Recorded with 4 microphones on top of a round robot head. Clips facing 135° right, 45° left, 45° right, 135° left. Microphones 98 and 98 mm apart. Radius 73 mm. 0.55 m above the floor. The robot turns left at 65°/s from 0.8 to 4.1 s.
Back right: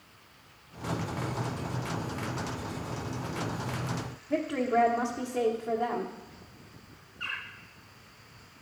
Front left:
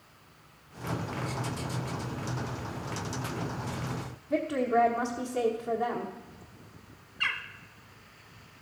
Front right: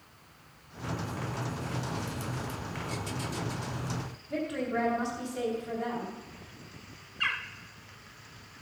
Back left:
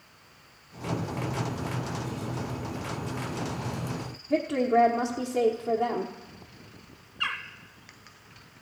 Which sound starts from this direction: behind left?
A woman speaking, at 4.3 s.